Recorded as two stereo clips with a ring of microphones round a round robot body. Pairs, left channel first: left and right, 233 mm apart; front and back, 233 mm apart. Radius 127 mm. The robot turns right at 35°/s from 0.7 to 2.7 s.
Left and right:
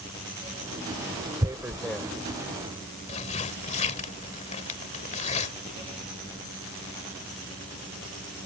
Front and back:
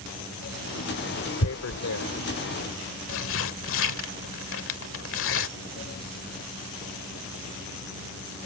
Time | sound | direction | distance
1.4 | tearing paper | 15° right | ?